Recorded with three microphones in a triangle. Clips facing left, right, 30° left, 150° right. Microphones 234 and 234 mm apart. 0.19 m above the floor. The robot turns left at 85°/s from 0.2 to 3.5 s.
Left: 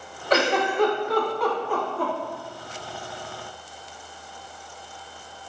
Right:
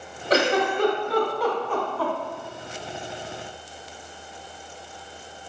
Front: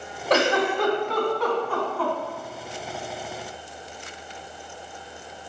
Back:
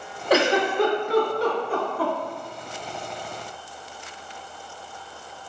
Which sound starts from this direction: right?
A giggle, at 0.3 s.